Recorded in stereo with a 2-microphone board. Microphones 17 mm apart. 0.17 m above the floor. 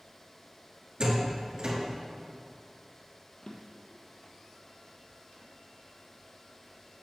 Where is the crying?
No crying in this recording.